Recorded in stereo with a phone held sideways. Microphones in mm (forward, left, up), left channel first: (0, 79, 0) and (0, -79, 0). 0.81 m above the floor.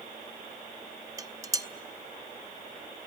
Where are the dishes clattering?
20° right (ahead or behind), 0.8 m.